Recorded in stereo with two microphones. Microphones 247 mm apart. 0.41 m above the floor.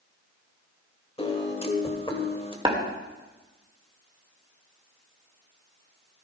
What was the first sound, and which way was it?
A piano, 25° left (ahead or behind).